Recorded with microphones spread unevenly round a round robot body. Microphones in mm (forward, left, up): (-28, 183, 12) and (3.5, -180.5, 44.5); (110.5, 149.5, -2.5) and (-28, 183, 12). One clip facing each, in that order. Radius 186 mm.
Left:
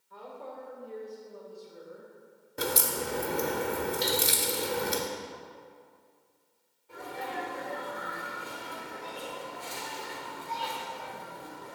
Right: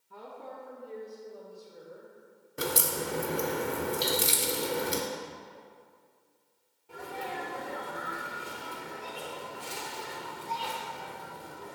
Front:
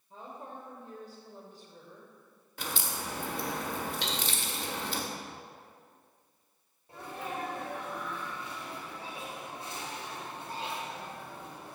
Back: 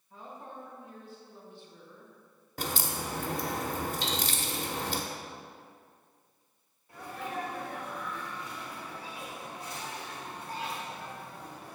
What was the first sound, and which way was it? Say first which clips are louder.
A woman speaking: left 1 dB, front 1 dB; 55° right.